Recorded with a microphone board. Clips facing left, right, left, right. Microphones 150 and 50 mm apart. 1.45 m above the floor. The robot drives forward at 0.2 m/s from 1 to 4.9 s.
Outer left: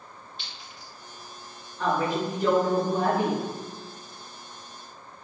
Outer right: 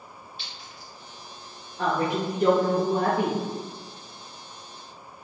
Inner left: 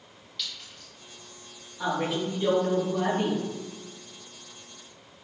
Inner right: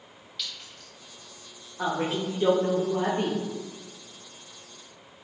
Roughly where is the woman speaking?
Right.